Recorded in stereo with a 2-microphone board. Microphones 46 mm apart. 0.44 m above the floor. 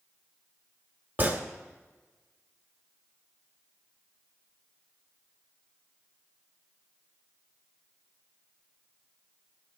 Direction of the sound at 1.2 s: 40° right (ahead or behind).